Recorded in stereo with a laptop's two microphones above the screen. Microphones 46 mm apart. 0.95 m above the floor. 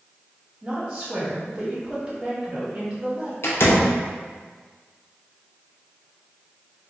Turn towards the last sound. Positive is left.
turn(degrees=65)  # may be behind; listen again after turning